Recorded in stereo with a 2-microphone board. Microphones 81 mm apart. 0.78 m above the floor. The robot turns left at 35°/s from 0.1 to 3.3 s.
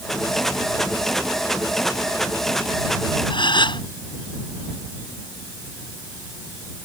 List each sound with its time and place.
3.3 s a gasp: 75° left (ahead or behind)